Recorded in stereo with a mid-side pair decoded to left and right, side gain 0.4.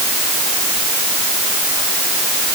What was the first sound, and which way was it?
Only background noise.